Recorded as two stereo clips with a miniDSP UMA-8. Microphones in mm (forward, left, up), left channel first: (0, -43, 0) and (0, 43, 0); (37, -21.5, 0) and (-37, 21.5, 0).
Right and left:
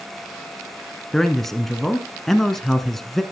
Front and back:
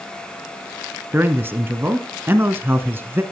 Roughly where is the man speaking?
Behind.